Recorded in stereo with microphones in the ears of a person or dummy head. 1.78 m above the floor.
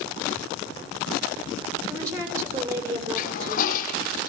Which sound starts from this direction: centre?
A woman speaking, at 1.8 s.